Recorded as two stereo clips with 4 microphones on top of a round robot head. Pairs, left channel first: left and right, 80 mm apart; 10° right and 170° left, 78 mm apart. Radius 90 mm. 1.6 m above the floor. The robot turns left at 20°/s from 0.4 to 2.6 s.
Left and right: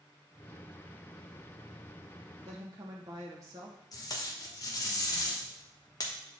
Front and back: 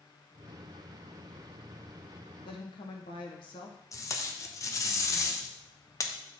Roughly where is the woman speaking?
Ahead right.